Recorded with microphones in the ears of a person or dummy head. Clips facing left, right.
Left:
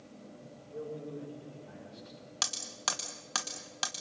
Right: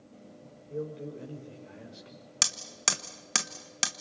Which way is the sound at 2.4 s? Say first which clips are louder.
Right 2 dB; 30° right (ahead or behind).